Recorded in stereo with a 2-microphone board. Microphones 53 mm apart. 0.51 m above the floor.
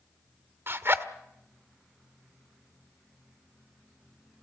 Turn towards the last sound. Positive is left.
turn(degrees=-50)  # may be behind; listen again after turning